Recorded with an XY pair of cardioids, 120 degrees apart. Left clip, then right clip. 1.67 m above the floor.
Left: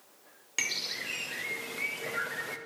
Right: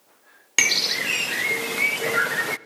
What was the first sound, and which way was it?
A bird, 65° right.